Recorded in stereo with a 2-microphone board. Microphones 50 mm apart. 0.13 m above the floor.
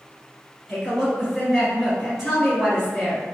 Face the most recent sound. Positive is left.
turn(degrees=-5)  # may be behind; listen again after turning